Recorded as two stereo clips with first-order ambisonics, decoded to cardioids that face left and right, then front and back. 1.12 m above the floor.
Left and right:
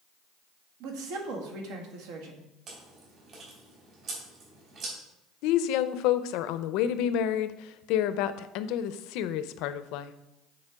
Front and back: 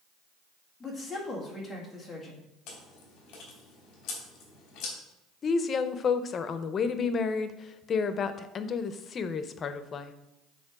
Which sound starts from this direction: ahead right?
Chewing, at 2.7 s.